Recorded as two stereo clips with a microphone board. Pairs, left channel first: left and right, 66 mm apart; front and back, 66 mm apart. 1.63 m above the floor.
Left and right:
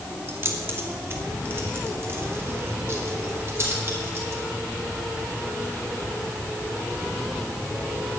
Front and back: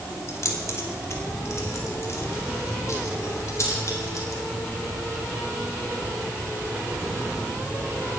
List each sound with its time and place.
0.3 s keys jangling: 40° right, 2.5 m